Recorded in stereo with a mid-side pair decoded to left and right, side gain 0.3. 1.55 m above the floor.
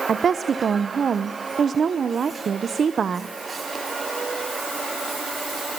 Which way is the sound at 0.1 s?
65° right.